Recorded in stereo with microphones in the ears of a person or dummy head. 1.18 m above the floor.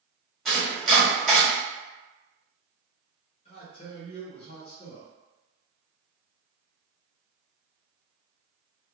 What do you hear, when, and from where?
0.5 s chopping: centre (ahead or behind), 1.4 m
3.5 s a man speaking: 30° left (ahead or behind), 0.6 m